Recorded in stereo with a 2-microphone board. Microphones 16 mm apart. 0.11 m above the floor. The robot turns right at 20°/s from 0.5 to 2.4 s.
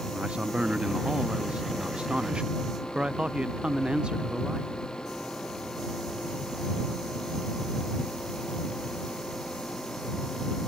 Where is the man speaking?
100° right; by 4.7 s 65° right.